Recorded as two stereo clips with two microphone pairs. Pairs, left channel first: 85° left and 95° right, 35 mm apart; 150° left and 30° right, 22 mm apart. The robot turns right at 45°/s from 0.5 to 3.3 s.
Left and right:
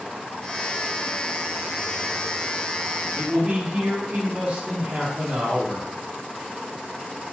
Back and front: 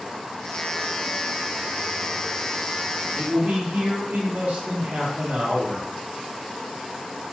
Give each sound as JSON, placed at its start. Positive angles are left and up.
{"t": 3.1, "sound": "a man speaking", "azimuth_deg": -55, "distance_m": 0.9}